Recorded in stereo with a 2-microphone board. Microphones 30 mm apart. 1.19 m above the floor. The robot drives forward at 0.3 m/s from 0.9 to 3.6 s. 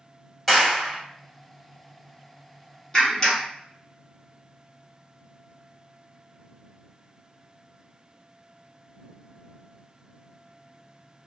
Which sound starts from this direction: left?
A clap, at 2.9 s.